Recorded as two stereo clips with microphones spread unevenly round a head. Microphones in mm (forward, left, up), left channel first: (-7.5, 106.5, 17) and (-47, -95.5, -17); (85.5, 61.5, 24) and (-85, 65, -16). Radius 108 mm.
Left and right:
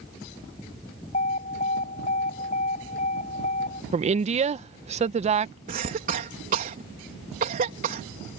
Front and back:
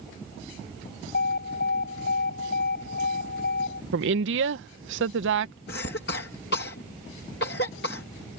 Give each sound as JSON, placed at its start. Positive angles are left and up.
{"t": 1.1, "sound": "an alarm", "azimuth_deg": 20}
{"t": 3.9, "sound": "a woman speaking", "azimuth_deg": -160}
{"t": 5.7, "sound": "a cough", "azimuth_deg": -45}